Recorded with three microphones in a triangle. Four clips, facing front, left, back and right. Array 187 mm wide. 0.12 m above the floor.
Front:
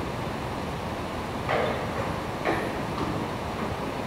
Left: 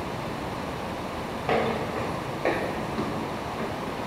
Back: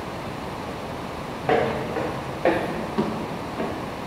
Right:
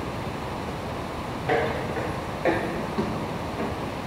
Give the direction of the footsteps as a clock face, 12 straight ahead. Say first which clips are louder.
Right 1 dB, back 6 dB; 6 o'clock.